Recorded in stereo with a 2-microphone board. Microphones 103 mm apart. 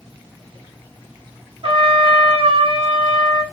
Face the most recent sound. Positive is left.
turn(degrees=-65)  # may be behind; listen again after turning